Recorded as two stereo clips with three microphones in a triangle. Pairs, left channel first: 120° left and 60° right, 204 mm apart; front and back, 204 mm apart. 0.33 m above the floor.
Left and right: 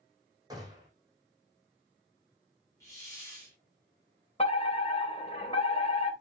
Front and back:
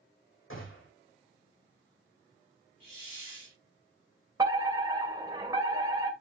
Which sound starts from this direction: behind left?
A fire alarm, at 4.4 s.